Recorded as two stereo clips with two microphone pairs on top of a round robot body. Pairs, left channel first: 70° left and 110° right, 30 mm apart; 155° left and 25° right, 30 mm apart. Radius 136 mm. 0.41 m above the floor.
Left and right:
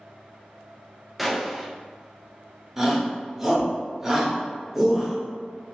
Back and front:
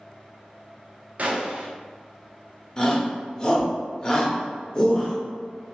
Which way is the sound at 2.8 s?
Straight behind.